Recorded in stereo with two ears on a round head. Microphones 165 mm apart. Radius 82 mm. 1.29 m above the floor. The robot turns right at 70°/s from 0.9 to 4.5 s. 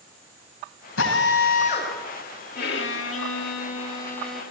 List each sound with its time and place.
1.0 s a drill: 85° left, 7.5 m; by 1.9 s 155° left, 7.5 m
2.5 s a violin: 55° left, 3 m; by 4.4 s 175° right, 3 m